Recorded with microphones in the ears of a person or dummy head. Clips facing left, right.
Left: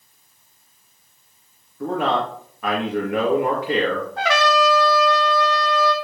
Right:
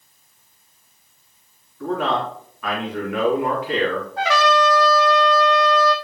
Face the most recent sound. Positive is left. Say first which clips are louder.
# right 1 dB
turn(degrees=55)  # may be behind; listen again after turning